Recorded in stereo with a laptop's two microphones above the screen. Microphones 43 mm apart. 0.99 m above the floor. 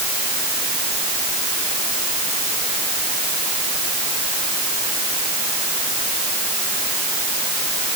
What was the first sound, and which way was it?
Only background noise.